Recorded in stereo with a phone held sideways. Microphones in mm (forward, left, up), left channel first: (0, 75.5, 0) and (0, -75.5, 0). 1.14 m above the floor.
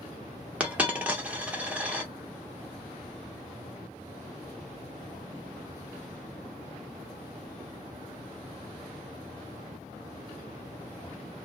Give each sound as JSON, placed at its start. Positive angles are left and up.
{"t": 0.6, "sound": "a dropped coin", "side_deg": -10, "distance_m": 0.8}